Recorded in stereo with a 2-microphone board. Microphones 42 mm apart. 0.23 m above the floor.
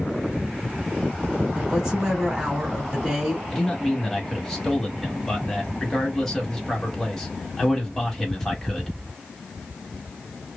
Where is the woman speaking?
15° right (ahead or behind), 1.9 m.